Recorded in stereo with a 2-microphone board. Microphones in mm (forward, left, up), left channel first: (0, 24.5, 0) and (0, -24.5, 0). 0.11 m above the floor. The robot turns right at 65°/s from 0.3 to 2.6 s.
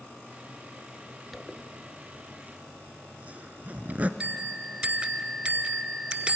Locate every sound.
1.3 s a zipper: centre (ahead or behind), 0.8 m; by 4.1 s 35° right (ahead or behind), 0.8 m
4.2 s a bell: 20° right (ahead or behind), 0.8 m